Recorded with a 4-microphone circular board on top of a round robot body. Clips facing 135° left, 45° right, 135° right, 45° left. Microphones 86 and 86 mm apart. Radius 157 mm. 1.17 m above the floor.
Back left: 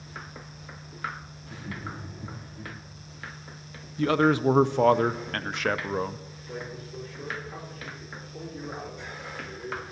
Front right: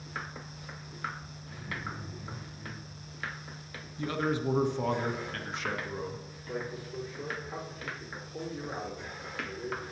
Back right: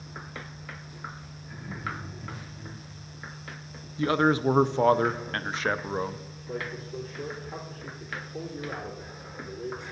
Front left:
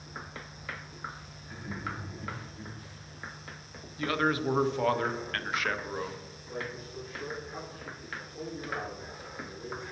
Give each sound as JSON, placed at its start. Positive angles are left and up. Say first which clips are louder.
{"t": 1.4, "sound": "laughter", "louder": "back left 2 dB, back right 2 dB", "azimuth_deg": 125, "distance_m": 3.0}
{"t": 4.0, "sound": "a man speaking", "louder": "back left 9 dB, back right 5 dB", "azimuth_deg": 165, "distance_m": 0.5}
{"t": 6.5, "sound": "a man speaking", "louder": "front right 1 dB, back right 4 dB", "azimuth_deg": -120, "distance_m": 3.5}